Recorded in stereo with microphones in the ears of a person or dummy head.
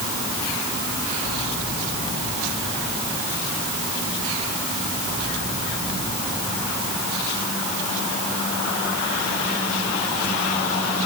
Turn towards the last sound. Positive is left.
No sound to turn to.